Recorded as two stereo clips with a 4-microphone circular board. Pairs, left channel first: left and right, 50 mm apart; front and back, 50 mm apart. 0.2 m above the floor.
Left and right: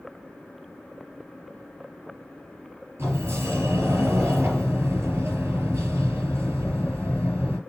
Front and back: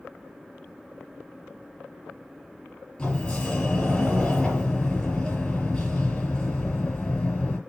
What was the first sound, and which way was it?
A sliding door, 70° right.